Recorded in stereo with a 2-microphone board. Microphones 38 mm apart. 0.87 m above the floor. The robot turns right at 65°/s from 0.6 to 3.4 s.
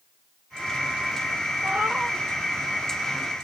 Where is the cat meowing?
75° right, 0.6 m; by 2.2 s 40° right, 0.6 m.